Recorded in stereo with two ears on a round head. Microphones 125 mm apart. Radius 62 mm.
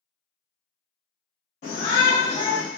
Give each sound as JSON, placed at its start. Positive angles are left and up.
{"t": 1.6, "sound": "a shout", "side_deg": 60, "distance_m": 2.5}